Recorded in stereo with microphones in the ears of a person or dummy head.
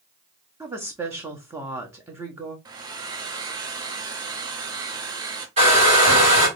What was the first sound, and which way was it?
A woman speaking, 15° right (ahead or behind).